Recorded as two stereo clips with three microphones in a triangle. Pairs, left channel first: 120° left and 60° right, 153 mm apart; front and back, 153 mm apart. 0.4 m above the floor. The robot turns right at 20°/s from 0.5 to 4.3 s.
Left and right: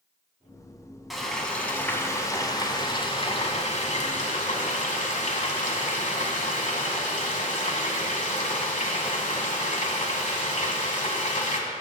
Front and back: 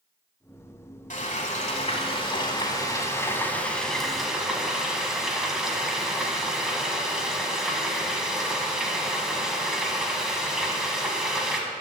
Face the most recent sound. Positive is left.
turn(degrees=95)